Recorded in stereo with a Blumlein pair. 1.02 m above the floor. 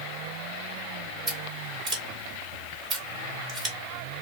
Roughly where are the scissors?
Ahead right.